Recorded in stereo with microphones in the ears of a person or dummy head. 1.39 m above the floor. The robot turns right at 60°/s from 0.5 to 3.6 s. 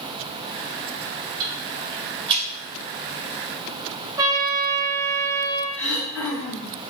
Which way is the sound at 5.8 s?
Centre (ahead or behind).